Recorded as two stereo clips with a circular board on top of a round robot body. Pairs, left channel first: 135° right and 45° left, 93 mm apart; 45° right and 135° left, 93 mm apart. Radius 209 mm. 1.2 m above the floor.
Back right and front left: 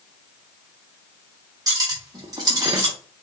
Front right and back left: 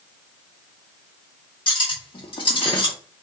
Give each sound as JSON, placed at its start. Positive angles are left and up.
{"t": 1.7, "sound": "cutlery clinking", "azimuth_deg": -5, "distance_m": 0.7}